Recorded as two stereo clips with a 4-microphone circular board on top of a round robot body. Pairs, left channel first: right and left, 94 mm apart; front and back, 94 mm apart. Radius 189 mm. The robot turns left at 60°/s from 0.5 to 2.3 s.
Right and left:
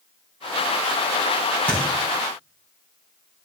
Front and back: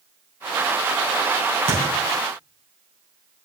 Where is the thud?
165° right, 2.5 m; by 1.8 s 175° right, 2.5 m.